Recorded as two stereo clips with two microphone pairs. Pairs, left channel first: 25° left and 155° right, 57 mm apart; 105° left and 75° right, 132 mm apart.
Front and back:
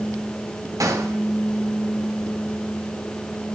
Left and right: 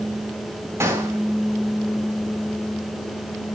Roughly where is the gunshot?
Behind right.